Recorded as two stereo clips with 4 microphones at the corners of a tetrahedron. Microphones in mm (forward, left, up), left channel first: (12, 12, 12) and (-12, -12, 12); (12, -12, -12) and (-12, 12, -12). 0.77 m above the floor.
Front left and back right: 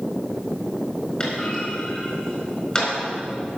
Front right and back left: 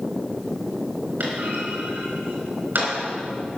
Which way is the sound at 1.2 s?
110° left.